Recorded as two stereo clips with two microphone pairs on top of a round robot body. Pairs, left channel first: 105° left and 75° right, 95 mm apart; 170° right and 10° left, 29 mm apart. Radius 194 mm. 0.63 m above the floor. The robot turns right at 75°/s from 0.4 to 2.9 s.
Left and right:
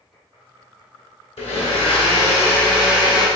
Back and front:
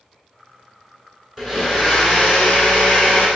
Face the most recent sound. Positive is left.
turn(degrees=-150)